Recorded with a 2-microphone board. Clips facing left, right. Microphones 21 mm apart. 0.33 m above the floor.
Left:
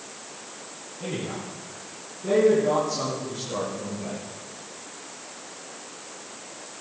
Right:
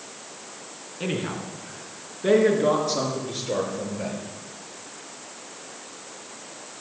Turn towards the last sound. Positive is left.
turn(degrees=-70)  # may be behind; listen again after turning